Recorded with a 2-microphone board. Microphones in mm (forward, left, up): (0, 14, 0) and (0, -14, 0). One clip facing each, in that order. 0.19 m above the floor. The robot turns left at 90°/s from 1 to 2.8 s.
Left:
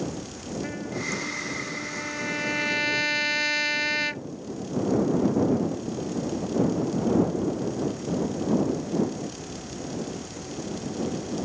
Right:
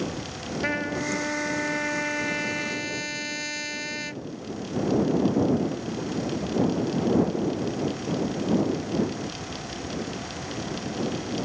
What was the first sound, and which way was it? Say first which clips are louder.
A trumpet: right 6 dB; 50° right.